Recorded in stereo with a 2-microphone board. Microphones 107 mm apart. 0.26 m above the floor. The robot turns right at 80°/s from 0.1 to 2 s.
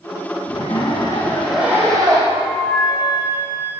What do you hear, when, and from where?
0.5 s a zipper: 95° left, 8 m; by 2.2 s 140° right, 8 m
2.3 s a flute: 15° right (ahead or behind), 6.5 m